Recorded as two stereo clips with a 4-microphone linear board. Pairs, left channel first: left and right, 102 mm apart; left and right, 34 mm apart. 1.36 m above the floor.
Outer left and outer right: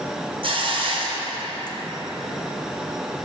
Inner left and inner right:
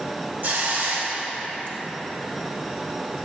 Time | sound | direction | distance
0.4 | a hiss | 55° right (ahead or behind) | 0.7 m